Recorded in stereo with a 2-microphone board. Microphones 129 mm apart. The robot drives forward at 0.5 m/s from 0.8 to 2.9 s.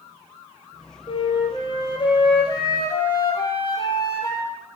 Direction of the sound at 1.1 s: 40° left (ahead or behind).